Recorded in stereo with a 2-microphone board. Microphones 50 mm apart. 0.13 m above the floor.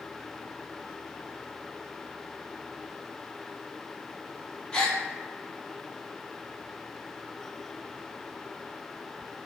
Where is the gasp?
15° left (ahead or behind), 0.6 m.